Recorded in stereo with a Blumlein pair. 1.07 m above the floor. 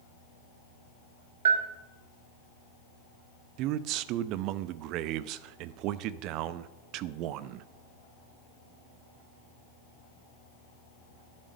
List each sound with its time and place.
1.4 s a bell: 60° right, 1.8 m
3.6 s a man speaking: 40° right, 0.8 m